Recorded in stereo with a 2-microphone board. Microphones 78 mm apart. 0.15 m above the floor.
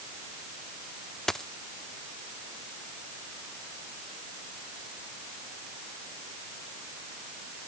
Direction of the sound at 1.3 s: 5° left (ahead or behind).